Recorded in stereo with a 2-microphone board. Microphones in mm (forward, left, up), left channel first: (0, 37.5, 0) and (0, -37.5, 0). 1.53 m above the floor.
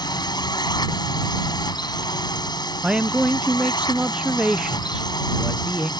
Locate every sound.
0.0 s a drone: 75° left (ahead or behind)
2.8 s a man speaking: 15° right (ahead or behind)